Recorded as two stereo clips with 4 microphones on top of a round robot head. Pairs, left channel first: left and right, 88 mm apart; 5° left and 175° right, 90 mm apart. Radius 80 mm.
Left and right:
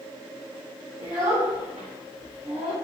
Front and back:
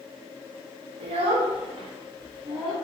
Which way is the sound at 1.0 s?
175° right.